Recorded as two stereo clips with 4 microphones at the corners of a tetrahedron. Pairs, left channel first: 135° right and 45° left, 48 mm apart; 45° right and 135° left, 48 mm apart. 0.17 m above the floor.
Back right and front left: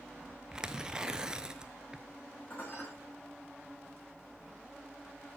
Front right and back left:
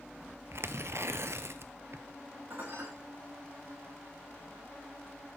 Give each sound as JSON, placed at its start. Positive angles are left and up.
{"t": 0.5, "sound": "tearing paper", "azimuth_deg": 120, "distance_m": 0.9}
{"t": 2.5, "sound": "dishes clattering", "azimuth_deg": 170, "distance_m": 8.0}